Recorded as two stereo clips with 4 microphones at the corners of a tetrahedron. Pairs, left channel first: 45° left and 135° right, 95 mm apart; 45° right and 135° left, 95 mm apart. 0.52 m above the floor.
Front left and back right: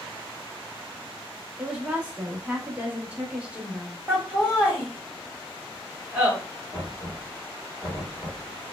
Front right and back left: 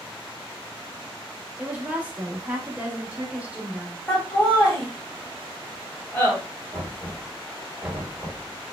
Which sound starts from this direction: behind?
A woman speaking, at 1.6 s.